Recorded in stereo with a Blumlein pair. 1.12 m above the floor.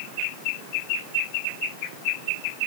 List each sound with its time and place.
Only background noise.